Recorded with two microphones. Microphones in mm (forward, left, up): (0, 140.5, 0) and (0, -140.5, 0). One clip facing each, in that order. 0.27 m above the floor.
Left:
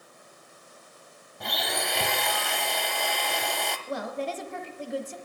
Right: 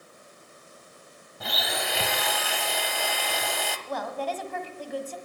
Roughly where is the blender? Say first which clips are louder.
Even; centre.